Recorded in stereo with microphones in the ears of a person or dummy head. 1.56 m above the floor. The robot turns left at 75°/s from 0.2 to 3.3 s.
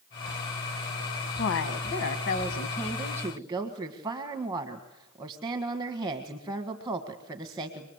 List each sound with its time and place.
1.4 s a woman speaking: 125° left, 1.7 m; by 7.9 s 15° right, 1.7 m